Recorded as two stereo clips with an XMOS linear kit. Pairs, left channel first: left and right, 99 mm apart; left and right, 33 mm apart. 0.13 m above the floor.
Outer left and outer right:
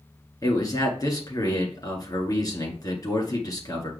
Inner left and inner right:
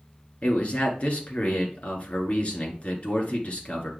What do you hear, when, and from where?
0.4 s a man speaking: 40° left (ahead or behind), 2 m